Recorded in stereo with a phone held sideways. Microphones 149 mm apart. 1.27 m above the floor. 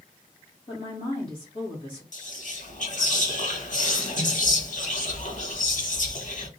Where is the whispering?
60° left (ahead or behind), 1.2 m.